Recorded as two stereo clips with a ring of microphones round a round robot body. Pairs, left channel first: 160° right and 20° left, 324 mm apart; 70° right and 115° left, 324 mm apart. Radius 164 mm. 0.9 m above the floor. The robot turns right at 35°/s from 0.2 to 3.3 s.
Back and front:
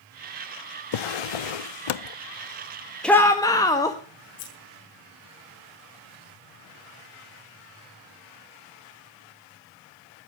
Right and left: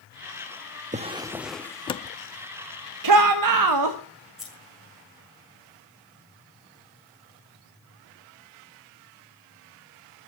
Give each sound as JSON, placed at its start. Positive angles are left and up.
{"t": 0.9, "sound": "a drawer", "azimuth_deg": 180, "distance_m": 0.6}
{"t": 3.0, "sound": "a shout", "azimuth_deg": 115, "distance_m": 1.4}
{"t": 4.4, "sound": "scissors", "azimuth_deg": -160, "distance_m": 6.5}